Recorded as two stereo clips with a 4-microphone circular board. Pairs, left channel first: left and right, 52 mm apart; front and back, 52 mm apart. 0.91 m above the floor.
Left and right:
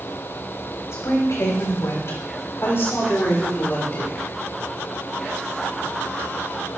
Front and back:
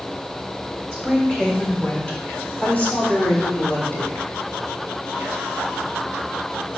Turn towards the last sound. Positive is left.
turn(degrees=45)